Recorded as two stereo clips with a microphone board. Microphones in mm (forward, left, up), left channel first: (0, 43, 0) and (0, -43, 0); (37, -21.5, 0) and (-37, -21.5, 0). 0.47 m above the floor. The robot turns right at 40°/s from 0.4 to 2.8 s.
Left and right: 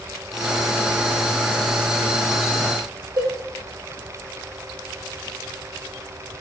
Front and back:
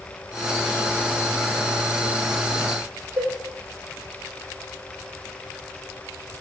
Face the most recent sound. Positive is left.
turn(degrees=-125)